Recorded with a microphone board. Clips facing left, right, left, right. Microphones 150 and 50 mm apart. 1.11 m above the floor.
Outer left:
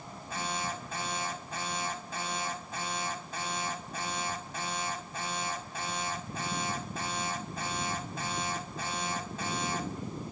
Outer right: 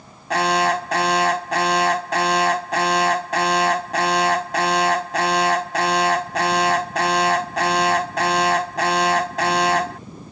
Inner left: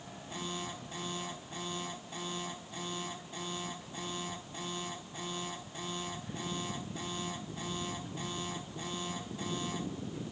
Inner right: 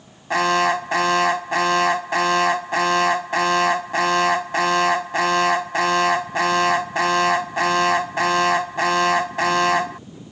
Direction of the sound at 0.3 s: 90° right.